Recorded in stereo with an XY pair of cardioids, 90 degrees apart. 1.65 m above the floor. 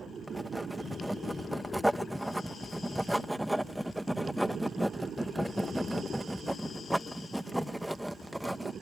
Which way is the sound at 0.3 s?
Straight ahead.